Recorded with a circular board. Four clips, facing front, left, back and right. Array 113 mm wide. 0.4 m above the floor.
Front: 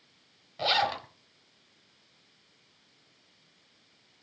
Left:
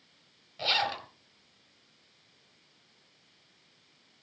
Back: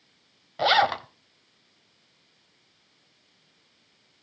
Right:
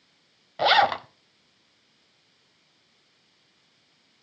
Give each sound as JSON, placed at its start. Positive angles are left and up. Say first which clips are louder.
{"t": 0.6, "sound": "a zipper", "louder": "right 12 dB, back 7 dB", "azimuth_deg": -120, "distance_m": 0.9}